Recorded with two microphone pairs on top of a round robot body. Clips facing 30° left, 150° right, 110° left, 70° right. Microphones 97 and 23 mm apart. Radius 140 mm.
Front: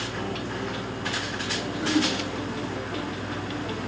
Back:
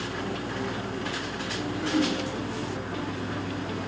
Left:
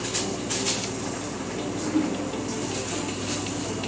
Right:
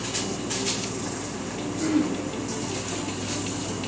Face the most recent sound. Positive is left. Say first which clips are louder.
# front 1 dB, right 2 dB
turn(degrees=-30)